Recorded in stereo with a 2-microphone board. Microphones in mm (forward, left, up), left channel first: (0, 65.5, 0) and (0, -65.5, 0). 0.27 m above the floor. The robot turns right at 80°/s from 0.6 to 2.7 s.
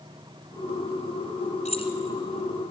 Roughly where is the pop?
No pop in this recording.